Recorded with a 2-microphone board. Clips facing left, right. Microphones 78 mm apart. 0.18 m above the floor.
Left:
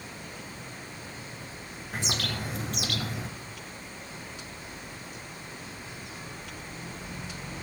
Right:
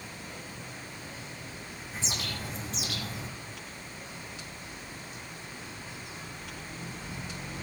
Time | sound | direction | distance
1.9 | a bird | 65° left (ahead or behind) | 1.5 m